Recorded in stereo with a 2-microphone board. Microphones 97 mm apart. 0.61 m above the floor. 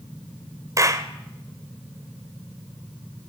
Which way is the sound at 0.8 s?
35° right (ahead or behind).